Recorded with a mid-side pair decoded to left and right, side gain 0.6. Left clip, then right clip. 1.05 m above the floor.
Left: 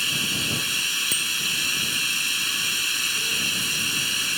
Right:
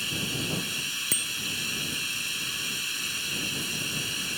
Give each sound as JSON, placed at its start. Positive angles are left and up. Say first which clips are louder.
{"t": 0.0, "sound": "running water", "louder": "left 6 dB", "azimuth_deg": 35}
{"t": 1.1, "sound": "a bicycle bell", "louder": "left 5 dB", "azimuth_deg": -5}